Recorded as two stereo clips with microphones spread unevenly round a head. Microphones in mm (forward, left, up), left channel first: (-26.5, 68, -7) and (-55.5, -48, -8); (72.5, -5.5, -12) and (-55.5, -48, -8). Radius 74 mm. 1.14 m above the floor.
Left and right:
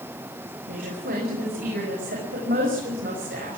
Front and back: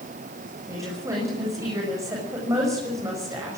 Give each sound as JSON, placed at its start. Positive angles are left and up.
{"t": 0.7, "sound": "a woman speaking", "azimuth_deg": -95, "distance_m": 7.0}